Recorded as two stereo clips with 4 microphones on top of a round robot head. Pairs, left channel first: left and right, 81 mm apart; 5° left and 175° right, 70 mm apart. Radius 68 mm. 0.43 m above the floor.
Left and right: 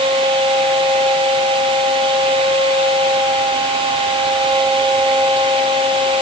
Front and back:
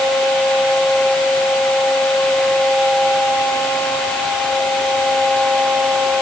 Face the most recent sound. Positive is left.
No sound to turn to.